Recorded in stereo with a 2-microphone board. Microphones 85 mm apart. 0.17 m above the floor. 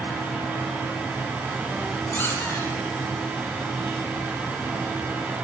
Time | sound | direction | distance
2.1 | a squeak | 25° left (ahead or behind) | 3.5 m